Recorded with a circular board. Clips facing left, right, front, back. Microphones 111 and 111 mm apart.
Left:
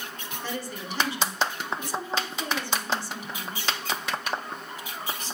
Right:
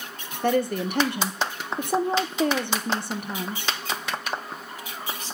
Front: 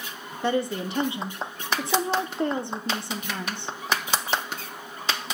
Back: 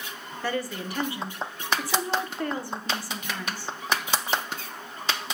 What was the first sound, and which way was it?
A woman speaking, 65° right.